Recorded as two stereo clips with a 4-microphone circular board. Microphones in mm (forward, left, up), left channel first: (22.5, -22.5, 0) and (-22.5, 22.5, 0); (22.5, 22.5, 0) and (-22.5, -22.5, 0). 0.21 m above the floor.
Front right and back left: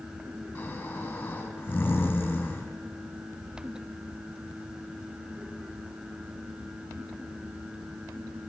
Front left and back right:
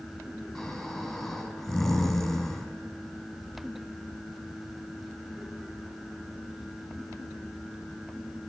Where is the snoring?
25° right, 1.5 m.